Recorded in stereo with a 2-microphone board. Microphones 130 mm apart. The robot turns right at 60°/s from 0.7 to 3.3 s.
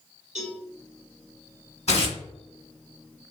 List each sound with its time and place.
0.3 s a cowbell: 65° right (ahead or behind), 1.6 m
1.9 s tearing paper: 55° left (ahead or behind), 1.2 m; by 2.2 s 40° left (ahead or behind), 1.2 m